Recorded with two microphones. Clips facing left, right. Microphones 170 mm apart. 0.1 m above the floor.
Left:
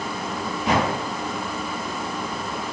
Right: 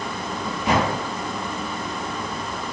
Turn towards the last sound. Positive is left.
No sound to turn to.